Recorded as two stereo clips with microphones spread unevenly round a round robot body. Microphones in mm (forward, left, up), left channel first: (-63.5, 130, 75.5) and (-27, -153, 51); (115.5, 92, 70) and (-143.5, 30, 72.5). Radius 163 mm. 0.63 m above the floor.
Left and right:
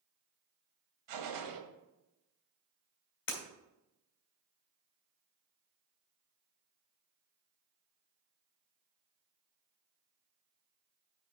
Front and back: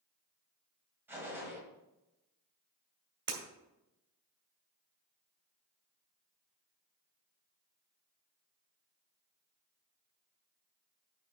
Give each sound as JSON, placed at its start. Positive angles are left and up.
{"t": 1.1, "sound": "a gunshot", "azimuth_deg": -85, "distance_m": 1.5}
{"t": 3.3, "sound": "breaking glass", "azimuth_deg": 150, "distance_m": 2.5}